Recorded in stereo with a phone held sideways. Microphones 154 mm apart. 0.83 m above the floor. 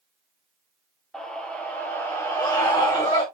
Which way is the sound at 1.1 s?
5° left (ahead or behind).